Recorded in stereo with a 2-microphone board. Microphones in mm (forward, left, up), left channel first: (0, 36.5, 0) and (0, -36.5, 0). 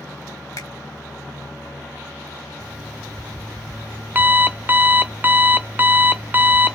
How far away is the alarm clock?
About 0.6 m.